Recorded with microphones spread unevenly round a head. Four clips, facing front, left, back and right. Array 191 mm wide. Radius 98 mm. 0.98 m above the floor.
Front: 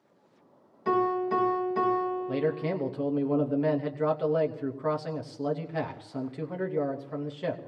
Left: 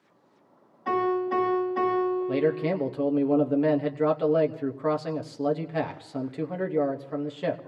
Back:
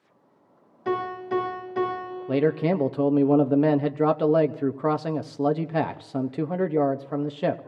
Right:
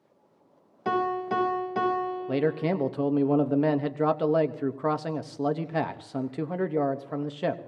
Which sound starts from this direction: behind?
A man speaking, at 2.3 s.